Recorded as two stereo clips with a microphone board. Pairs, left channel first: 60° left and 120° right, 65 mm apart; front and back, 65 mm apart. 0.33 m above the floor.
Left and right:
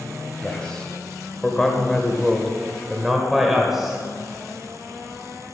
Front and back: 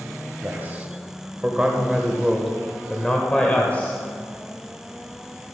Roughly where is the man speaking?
Behind left.